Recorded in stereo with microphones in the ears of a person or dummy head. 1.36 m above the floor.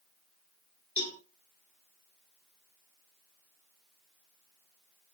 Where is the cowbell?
15° left (ahead or behind), 2.5 m.